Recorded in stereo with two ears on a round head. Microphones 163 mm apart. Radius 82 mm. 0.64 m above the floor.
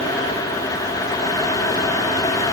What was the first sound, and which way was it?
Only background noise.